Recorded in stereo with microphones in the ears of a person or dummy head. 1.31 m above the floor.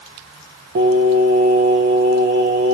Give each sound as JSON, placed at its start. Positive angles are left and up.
{"t": 0.8, "sound": "singing", "side_deg": -50, "distance_m": 0.6}